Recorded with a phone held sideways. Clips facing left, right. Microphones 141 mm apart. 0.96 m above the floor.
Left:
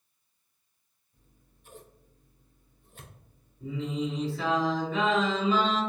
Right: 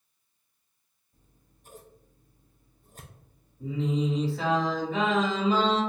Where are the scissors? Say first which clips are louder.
Even; 40° right (ahead or behind), 0.5 m.